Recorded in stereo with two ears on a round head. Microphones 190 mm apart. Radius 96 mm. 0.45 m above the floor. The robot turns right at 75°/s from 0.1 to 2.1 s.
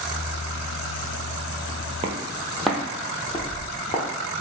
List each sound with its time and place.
2.0 s footsteps: 25° right (ahead or behind), 0.6 m; by 4.4 s 35° left (ahead or behind), 1.3 m